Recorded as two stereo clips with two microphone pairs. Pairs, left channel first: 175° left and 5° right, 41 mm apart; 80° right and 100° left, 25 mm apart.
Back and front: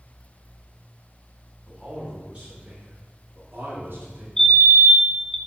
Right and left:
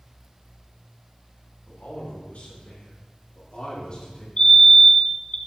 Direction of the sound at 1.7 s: 70° right.